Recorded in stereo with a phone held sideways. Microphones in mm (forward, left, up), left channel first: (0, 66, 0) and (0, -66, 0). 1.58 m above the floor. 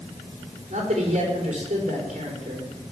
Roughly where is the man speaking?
Right.